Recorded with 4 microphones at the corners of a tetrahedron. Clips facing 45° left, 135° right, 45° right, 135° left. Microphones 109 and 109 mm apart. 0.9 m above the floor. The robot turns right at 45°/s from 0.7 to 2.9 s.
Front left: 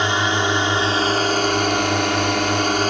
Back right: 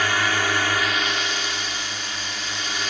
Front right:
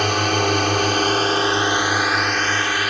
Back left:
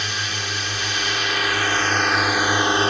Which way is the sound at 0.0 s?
20° right.